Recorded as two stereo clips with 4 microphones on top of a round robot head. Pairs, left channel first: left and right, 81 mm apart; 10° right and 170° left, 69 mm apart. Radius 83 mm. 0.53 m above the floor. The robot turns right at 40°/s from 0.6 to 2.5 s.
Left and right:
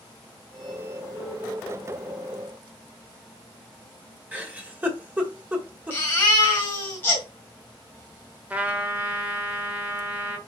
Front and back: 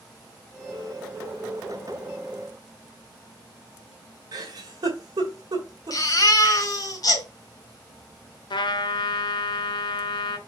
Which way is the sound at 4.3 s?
160° right.